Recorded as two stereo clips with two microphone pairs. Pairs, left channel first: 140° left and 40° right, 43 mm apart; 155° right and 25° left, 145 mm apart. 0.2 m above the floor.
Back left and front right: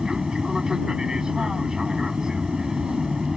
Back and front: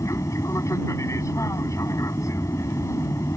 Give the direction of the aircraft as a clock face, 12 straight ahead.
3 o'clock.